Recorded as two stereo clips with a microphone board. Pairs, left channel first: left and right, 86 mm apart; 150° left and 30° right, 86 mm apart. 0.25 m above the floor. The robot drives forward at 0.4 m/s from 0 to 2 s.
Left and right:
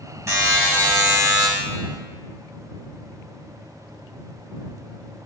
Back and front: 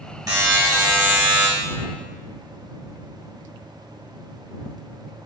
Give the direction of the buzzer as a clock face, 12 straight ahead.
2 o'clock.